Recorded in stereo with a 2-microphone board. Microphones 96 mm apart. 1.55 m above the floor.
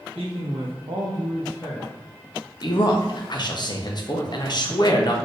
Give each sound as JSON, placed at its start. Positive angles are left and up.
{"t": 0.1, "sound": "a man speaking", "side_deg": -75, "distance_m": 1.5}
{"t": 2.6, "sound": "a man speaking", "side_deg": 45, "distance_m": 0.7}